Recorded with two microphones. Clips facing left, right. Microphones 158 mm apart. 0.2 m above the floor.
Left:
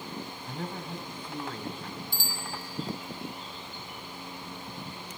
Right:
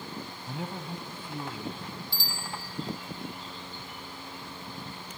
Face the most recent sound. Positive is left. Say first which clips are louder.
# left 1 dB
turn(degrees=50)  # may be behind; listen again after turning